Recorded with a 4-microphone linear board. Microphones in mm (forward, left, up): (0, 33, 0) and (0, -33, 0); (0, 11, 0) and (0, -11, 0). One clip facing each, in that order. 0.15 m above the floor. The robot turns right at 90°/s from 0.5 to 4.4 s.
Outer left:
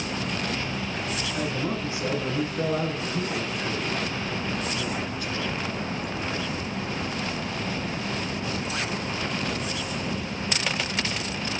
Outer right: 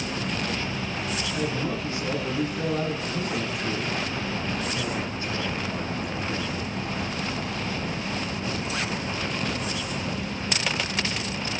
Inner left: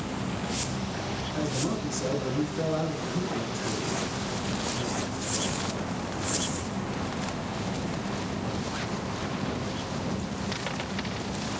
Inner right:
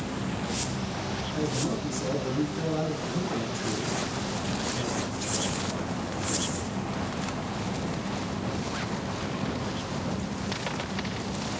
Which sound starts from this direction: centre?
A man speaking, at 1.3 s.